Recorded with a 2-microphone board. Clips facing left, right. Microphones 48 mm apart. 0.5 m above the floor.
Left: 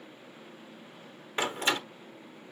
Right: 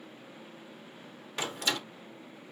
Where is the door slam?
35° left (ahead or behind), 1.0 m.